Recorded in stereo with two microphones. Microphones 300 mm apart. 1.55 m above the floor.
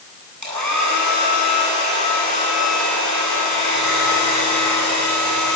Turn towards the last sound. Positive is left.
turn(degrees=-70)  # may be behind; listen again after turning